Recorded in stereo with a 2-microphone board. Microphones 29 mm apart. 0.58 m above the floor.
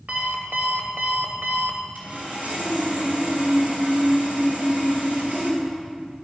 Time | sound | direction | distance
0.1 | an alarm clock | 75° right (ahead or behind) | 1.5 m
1.9 | sawing | 60° right (ahead or behind) | 3.5 m